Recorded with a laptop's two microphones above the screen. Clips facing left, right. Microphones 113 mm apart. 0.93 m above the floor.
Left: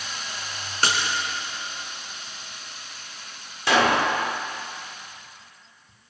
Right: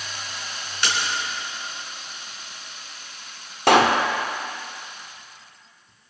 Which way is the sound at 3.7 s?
60° right (ahead or behind).